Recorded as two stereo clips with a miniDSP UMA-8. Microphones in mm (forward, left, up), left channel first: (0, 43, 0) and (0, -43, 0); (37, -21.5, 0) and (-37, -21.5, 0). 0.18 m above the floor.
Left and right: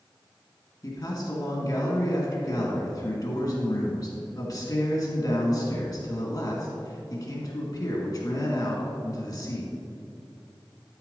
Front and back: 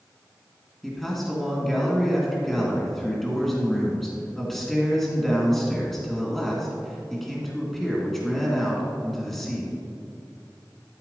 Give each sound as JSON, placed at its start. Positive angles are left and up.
{"t": 0.8, "sound": "a man speaking", "azimuth_deg": 85, "distance_m": 2.0}